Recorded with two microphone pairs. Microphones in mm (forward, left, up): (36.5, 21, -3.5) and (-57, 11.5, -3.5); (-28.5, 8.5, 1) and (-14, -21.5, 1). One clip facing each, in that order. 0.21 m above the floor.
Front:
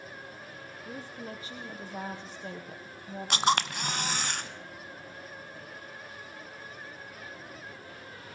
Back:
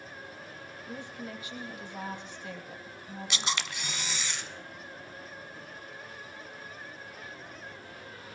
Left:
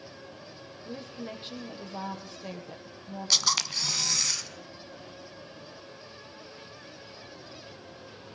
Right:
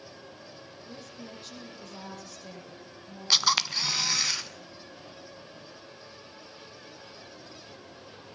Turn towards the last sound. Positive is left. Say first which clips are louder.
# front 10 dB, right 3 dB
turn(degrees=5)